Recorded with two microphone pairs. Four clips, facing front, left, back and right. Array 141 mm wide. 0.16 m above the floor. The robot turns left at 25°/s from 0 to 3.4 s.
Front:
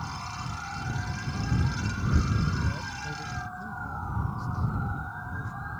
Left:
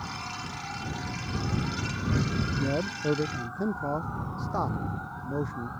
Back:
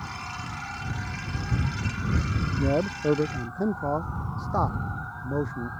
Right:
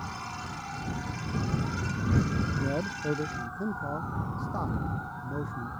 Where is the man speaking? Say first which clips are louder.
Left 2 dB, back 10 dB; straight behind; by 5.7 s 160° left.